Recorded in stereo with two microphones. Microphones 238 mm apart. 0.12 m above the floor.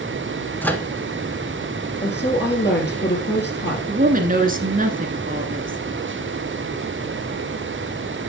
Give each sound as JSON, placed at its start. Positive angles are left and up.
{"t": 0.6, "sound": "a microwave", "side_deg": 10, "distance_m": 0.9}
{"t": 2.0, "sound": "a woman speaking", "side_deg": 45, "distance_m": 2.5}
{"t": 3.9, "sound": "a woman speaking", "side_deg": -35, "distance_m": 1.2}